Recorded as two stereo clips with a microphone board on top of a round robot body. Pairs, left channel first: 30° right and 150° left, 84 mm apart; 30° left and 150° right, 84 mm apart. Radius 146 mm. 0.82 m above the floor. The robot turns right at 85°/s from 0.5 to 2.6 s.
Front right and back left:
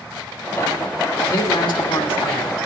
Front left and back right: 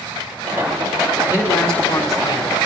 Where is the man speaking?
85° right, 3 m; by 2.5 s 20° left, 3 m.